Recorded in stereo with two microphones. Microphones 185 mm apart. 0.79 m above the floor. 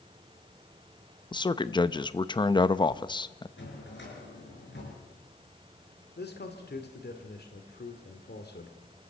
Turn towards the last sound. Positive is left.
turn(degrees=65)  # may be behind; listen again after turning